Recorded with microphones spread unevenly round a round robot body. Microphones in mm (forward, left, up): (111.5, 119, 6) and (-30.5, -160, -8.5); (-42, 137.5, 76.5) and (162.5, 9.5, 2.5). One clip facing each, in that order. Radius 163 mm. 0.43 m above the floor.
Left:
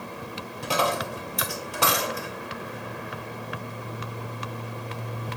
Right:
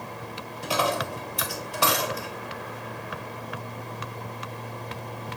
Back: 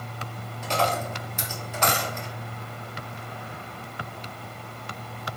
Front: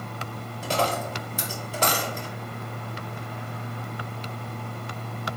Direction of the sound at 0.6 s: 25° left.